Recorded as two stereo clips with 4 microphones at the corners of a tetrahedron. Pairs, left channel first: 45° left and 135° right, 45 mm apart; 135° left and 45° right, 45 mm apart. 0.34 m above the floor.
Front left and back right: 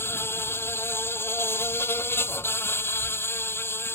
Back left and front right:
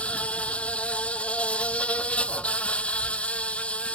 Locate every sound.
0.0 s an insect: 75° left